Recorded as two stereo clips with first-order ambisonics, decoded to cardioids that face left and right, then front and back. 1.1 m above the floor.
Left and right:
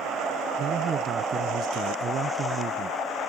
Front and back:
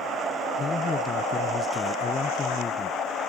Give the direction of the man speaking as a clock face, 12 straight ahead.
2 o'clock.